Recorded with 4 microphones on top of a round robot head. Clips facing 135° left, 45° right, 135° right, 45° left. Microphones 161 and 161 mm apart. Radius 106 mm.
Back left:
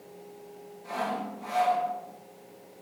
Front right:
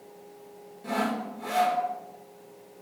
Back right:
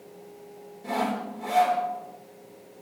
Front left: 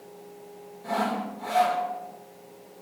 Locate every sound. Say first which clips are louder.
0.8 s sawing: front right 3 dB, even; 70° right, 3.5 m